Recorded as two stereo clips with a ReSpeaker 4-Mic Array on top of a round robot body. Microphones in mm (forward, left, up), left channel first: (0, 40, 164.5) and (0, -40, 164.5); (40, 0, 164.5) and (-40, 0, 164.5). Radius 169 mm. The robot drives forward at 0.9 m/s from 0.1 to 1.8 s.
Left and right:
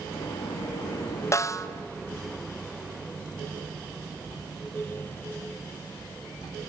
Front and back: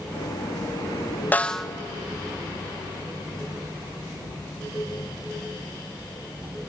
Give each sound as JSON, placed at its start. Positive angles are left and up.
{"t": 1.3, "sound": "a snare drum", "azimuth_deg": 60, "distance_m": 0.9}